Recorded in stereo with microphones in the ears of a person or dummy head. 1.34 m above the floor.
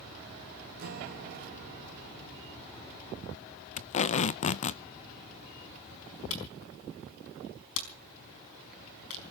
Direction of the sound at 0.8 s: 55° right (ahead or behind).